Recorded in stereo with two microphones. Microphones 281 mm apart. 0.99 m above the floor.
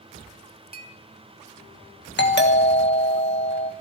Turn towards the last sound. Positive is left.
turn(degrees=35)  # may be behind; listen again after turning